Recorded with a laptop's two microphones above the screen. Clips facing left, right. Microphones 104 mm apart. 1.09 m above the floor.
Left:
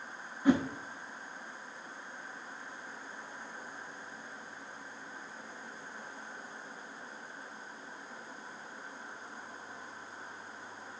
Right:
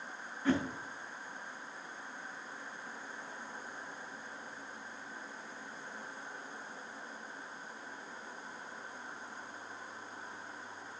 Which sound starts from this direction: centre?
A whoosh, at 0.5 s.